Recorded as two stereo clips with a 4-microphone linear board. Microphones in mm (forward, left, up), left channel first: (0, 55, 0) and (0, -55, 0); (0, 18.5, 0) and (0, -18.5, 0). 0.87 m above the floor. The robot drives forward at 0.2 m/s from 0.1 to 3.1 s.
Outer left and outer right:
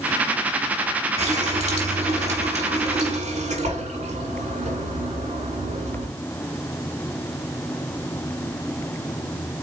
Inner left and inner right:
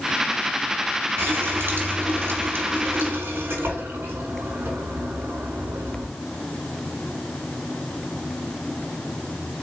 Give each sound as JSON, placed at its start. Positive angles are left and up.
{"t": 1.2, "sound": "a running tap", "side_deg": -80, "distance_m": 1.5}